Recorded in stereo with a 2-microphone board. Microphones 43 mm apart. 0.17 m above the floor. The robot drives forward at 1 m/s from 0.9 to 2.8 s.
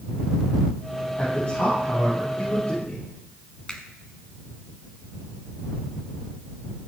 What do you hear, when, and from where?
1.2 s a man speaking: 35° left (ahead or behind), 6 m; by 3.0 s 25° left (ahead or behind), 7 m
3.7 s a finger snap: 20° left (ahead or behind), 1.5 m